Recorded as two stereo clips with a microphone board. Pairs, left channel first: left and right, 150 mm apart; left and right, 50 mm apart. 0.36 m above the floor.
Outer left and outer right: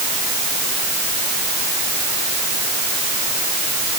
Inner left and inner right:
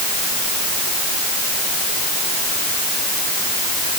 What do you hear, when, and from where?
Only background noise.